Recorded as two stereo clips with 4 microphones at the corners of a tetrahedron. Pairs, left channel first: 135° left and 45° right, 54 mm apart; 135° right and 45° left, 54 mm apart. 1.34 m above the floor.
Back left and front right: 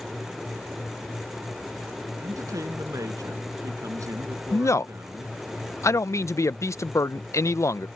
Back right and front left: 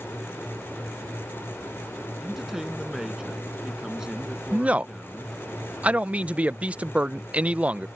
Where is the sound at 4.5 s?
110° left.